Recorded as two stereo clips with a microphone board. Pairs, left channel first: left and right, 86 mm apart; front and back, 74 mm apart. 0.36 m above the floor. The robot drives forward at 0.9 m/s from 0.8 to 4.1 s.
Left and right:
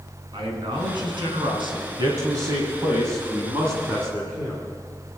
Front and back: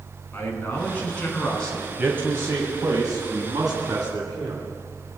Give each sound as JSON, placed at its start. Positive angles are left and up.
{"t": 0.3, "sound": "a man speaking", "azimuth_deg": -70, "distance_m": 4.5}
{"t": 1.9, "sound": "a man speaking", "azimuth_deg": -115, "distance_m": 1.9}